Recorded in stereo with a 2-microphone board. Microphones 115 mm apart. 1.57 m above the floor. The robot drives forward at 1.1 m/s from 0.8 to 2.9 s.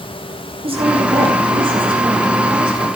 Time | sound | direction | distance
0.6 | a woman speaking | 55° right (ahead or behind) | 8.5 m